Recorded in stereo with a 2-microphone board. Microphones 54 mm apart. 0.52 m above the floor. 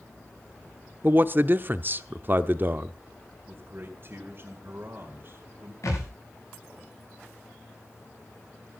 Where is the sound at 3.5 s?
45° right (ahead or behind), 2 m.